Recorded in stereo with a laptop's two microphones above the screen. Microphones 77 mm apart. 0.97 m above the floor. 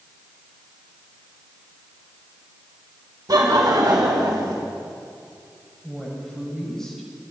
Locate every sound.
3.3 s laughter: 55° right (ahead or behind), 1.1 m; by 4.6 s 50° right (ahead or behind), 1.9 m
5.8 s a woman speaking: 5° left (ahead or behind), 5 m